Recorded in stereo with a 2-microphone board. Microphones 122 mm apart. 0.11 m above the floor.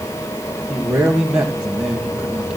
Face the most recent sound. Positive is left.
turn(degrees=-5)  # may be behind; listen again after turning